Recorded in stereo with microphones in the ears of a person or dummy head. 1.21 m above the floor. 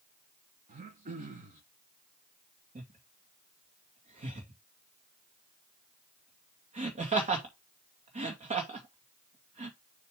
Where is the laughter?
35° right (ahead or behind), 2 m.